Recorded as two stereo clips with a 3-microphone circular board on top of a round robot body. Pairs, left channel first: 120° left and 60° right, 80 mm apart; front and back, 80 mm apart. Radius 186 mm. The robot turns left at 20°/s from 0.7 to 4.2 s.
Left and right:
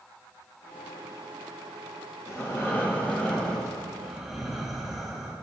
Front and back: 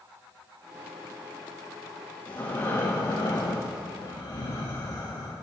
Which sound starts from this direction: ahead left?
Breathing, at 2.3 s.